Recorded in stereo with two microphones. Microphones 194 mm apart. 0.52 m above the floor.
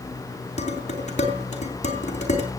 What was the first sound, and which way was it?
Dishes clattering, 40° left (ahead or behind).